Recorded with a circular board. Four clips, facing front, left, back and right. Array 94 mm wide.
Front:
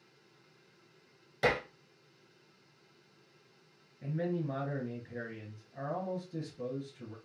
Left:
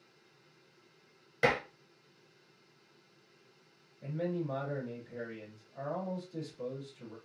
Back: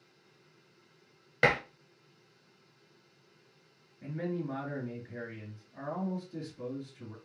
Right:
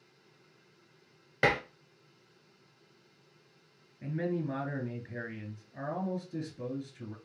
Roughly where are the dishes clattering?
Behind right.